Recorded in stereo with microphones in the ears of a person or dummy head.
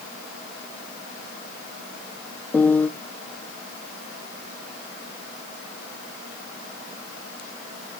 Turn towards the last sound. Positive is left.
turn(degrees=10)  # may be behind; listen again after turning